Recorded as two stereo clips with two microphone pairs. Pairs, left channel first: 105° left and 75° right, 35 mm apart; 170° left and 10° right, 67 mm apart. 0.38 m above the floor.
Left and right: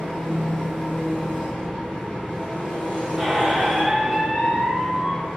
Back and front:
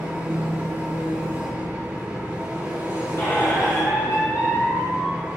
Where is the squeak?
160° right, 1.1 m.